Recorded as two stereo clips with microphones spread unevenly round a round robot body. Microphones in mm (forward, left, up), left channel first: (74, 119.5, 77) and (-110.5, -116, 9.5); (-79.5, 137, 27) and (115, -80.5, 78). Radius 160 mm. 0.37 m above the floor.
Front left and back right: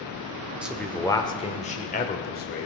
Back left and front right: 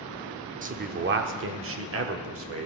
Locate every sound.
0.6 s a man speaking: 90° right, 1.0 m; by 2.6 s 10° right, 1.7 m